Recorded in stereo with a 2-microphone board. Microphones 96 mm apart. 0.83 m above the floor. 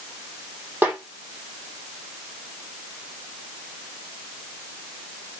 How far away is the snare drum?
About 5 m.